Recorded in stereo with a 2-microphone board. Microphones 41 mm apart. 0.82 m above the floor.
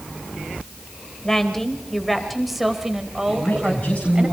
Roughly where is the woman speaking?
Centre.